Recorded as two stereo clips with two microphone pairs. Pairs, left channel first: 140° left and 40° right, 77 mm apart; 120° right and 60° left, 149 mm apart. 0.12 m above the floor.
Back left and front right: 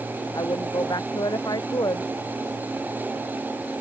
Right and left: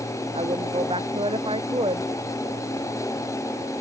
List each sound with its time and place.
0.3 s a woman speaking: 110° left